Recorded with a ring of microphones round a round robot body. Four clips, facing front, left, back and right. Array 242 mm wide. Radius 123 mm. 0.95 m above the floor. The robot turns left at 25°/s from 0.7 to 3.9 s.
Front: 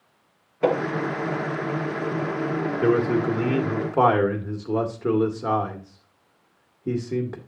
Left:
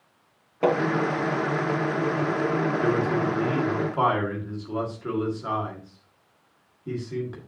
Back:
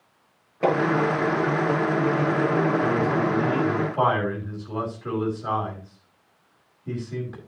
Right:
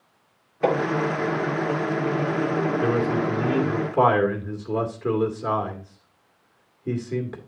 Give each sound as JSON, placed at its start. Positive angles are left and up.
{"t": 0.6, "sound": "hammering", "azimuth_deg": 125, "distance_m": 7.0}
{"t": 2.8, "sound": "a man speaking", "azimuth_deg": 10, "distance_m": 2.0}